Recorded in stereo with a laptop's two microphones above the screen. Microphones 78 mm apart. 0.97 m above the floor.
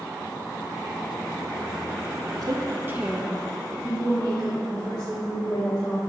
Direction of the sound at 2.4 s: 60° right (ahead or behind).